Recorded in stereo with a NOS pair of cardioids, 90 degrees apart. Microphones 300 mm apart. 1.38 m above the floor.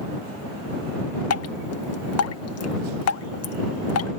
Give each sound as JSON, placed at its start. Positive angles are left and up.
{"t": 1.3, "sound": "dripping", "azimuth_deg": 60}